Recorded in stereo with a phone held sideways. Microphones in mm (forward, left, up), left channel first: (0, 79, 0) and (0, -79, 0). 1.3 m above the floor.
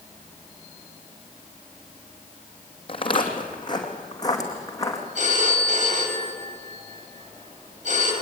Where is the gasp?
I don't hear a gasp.